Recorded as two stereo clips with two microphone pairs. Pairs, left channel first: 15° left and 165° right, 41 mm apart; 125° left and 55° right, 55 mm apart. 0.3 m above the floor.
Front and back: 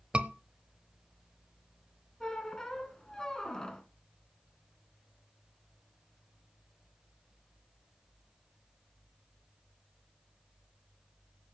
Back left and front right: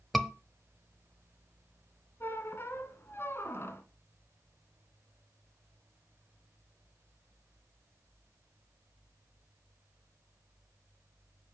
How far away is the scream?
About 0.9 m.